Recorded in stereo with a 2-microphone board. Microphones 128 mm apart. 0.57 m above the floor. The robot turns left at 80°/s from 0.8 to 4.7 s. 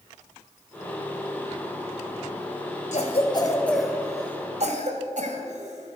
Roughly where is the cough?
Left.